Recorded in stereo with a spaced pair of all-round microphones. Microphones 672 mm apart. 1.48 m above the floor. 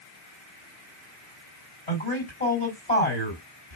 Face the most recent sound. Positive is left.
turn(degrees=75)  # may be behind; listen again after turning